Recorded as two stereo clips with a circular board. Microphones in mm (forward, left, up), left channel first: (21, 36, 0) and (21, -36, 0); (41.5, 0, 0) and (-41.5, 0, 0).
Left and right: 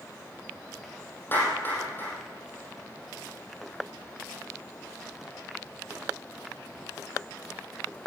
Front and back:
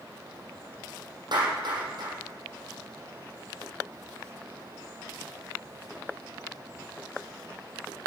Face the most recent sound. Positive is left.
turn(degrees=155)